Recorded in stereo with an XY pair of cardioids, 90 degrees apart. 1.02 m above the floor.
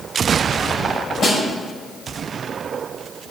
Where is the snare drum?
60° left, 5 m.